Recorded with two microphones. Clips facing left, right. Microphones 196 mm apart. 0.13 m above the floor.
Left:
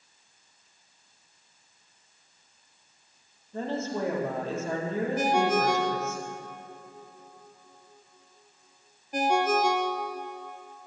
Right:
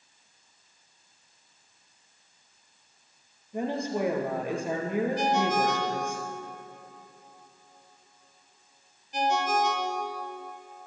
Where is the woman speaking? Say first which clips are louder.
Right 1 dB; 15° right (ahead or behind), 3 m.